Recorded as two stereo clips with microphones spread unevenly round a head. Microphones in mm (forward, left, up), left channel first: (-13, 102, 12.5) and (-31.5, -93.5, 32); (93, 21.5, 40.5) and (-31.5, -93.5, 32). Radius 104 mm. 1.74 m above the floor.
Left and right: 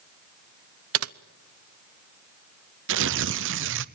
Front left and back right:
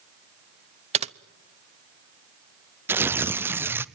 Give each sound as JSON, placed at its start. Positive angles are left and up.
{"t": 0.9, "sound": "typing on a keyboard", "azimuth_deg": -85, "distance_m": 0.8}
{"t": 2.9, "sound": "tearing paper", "azimuth_deg": -60, "distance_m": 0.8}